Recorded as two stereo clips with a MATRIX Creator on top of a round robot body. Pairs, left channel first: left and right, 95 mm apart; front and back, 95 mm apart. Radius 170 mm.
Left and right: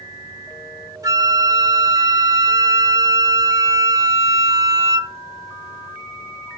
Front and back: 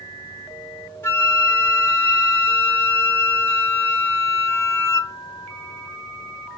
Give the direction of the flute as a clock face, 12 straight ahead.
2 o'clock.